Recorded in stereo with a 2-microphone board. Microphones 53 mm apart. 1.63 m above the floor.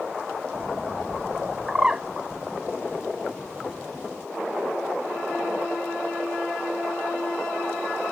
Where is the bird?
15° right (ahead or behind).